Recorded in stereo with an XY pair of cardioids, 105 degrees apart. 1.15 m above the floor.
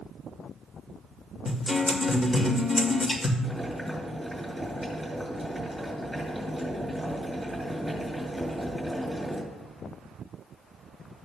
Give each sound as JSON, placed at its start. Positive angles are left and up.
{"t": 1.4, "sound": "a guitar", "azimuth_deg": 30, "distance_m": 1.9}
{"t": 3.4, "sound": "boiling", "azimuth_deg": 5, "distance_m": 4.5}